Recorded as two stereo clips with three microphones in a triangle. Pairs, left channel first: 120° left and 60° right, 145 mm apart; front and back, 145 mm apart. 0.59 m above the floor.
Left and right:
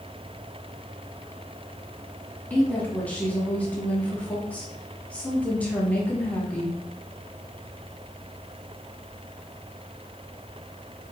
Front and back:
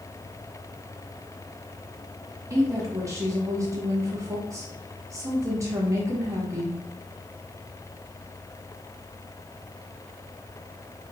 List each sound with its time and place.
2.5 s a woman speaking: straight behind, 1.0 m